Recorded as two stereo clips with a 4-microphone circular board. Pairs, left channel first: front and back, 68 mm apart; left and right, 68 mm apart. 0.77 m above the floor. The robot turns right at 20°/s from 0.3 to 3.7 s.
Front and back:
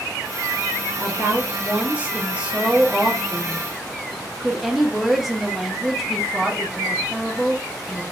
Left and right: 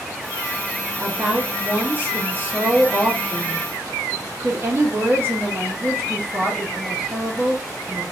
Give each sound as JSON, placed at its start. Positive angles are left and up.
{"t": 1.0, "sound": "a woman speaking", "azimuth_deg": -150, "distance_m": 0.7}